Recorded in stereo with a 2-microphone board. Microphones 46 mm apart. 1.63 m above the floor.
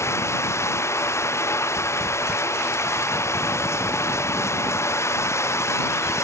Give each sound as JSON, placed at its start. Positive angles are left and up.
{"t": 0.0, "sound": "running water", "side_deg": 85}